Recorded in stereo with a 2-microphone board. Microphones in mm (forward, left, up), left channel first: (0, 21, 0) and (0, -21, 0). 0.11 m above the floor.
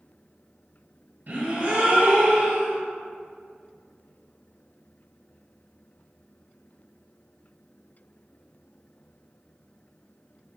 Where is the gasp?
50° right (ahead or behind), 1.5 m.